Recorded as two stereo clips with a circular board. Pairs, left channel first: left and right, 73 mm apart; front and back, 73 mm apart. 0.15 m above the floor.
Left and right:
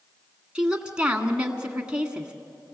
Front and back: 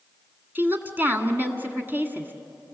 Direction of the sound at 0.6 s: 155° right.